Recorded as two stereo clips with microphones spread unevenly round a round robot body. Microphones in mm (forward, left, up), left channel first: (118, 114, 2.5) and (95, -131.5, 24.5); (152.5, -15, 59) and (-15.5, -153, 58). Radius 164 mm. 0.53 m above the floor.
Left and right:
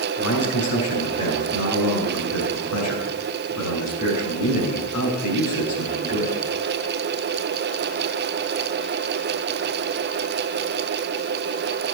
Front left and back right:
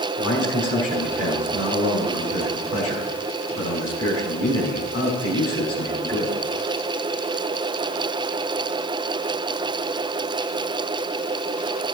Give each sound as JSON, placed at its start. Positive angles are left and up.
{"t": 0.2, "sound": "a man speaking", "azimuth_deg": 70, "distance_m": 7.0}